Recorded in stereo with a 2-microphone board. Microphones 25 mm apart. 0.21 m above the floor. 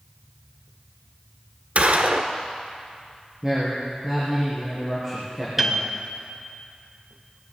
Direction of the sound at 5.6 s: 15° right (ahead or behind).